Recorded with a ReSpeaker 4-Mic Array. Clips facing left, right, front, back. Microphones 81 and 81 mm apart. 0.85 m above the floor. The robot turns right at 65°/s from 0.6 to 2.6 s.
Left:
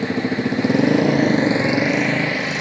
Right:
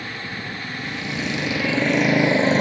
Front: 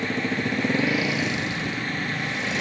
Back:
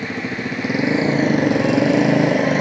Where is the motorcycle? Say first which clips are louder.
Left 11 dB, back 1 dB; 90° left; by 2.6 s 140° right.